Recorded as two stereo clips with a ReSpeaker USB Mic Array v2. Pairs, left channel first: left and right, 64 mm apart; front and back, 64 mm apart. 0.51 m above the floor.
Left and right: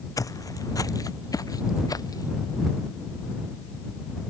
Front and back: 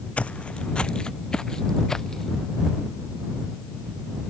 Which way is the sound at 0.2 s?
70° left.